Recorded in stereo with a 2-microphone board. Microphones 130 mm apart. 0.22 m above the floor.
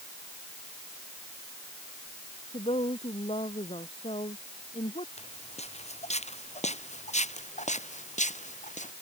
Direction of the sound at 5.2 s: 55° left (ahead or behind).